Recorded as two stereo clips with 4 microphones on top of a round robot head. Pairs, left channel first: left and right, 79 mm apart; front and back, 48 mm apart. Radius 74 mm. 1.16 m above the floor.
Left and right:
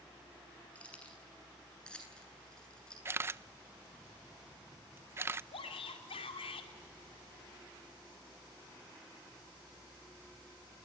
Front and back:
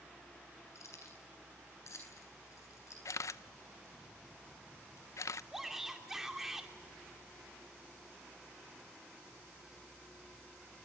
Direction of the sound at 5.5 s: 100° left.